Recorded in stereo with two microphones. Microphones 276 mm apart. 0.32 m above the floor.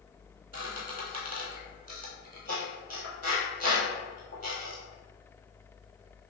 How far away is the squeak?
About 1.3 m.